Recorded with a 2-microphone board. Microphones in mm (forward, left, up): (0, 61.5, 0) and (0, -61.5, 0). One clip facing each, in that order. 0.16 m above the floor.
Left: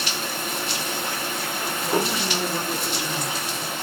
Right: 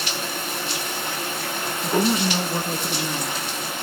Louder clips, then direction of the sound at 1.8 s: Right 4 dB; 40° right (ahead or behind).